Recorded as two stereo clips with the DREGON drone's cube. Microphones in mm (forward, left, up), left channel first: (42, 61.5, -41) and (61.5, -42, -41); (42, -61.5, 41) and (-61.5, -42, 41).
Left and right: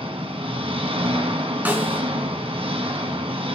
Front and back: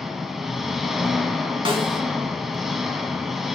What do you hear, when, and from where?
0.0 s an engine running: 100° right, 1.6 m
1.6 s a snare drum: 150° right, 2.5 m